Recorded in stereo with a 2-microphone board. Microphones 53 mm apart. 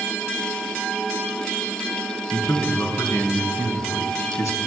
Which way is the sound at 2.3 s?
80° left.